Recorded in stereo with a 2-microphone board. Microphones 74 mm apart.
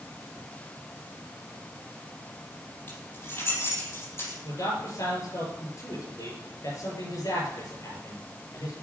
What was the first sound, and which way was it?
Keys jangling, 25° left (ahead or behind).